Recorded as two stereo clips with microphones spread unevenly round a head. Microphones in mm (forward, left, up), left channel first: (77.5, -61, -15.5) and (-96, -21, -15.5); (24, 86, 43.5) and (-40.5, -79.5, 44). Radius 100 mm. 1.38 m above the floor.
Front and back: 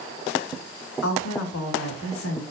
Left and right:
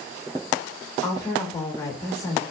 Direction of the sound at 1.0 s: 5° right.